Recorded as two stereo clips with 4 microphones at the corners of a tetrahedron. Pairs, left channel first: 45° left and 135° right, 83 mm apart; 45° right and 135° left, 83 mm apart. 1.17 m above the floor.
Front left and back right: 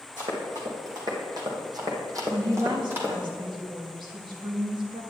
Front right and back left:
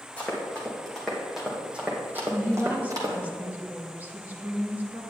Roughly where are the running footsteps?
Behind right.